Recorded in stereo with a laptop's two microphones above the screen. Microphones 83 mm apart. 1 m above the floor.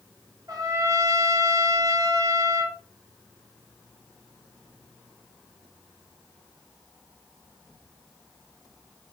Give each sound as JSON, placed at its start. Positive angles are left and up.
{"t": 0.5, "sound": "a trumpet", "side_deg": -45, "distance_m": 0.7}